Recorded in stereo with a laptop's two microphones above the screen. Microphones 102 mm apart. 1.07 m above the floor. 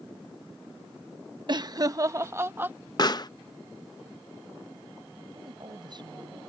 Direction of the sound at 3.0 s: 40° left (ahead or behind).